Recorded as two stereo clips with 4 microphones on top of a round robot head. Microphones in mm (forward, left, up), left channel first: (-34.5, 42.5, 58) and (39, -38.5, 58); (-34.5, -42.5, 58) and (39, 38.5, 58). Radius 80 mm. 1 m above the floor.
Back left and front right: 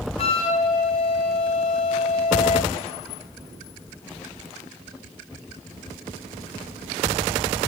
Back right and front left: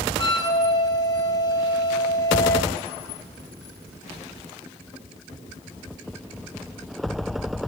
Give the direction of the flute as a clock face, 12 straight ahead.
6 o'clock.